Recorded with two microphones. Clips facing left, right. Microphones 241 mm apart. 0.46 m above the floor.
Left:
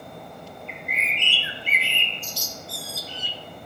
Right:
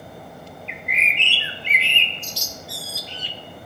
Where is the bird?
75° right (ahead or behind), 0.5 m.